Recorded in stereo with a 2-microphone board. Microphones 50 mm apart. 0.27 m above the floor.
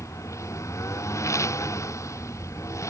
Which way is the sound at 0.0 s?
80° left.